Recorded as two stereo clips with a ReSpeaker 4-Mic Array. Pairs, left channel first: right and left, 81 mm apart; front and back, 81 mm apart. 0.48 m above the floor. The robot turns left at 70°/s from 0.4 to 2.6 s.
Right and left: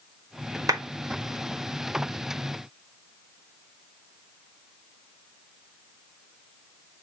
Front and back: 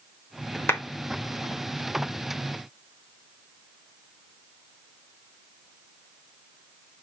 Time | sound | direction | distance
0.7 | a clap | 55° left | 1.3 m